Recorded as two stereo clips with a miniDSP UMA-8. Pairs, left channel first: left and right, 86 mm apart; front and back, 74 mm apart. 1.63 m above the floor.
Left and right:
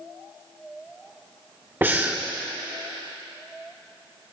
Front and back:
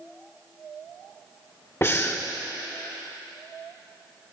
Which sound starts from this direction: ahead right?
Breathing, at 1.8 s.